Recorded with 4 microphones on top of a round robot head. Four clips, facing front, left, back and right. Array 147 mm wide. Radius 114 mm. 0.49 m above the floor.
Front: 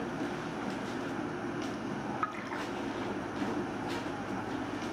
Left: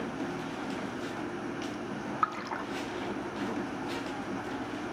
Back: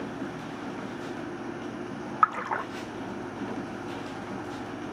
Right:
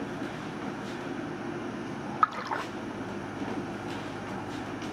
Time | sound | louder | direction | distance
2.2 | a splash | right 6 dB, back 10 dB | 160° right | 0.6 m